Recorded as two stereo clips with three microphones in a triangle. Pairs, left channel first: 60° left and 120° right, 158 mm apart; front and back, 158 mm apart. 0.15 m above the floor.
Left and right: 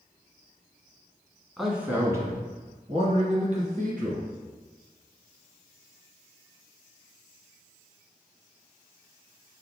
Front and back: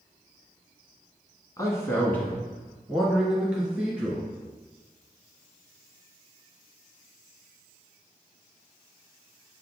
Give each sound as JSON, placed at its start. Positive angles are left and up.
{"t": 1.6, "sound": "a man speaking", "azimuth_deg": -25, "distance_m": 1.1}